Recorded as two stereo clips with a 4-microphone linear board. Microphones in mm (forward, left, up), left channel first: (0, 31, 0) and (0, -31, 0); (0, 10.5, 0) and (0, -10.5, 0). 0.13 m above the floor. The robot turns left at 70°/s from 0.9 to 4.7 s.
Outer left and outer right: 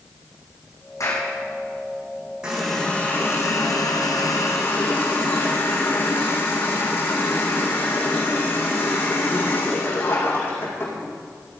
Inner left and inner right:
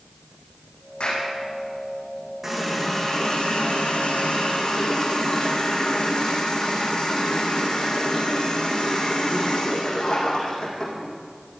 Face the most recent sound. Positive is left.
turn(degrees=35)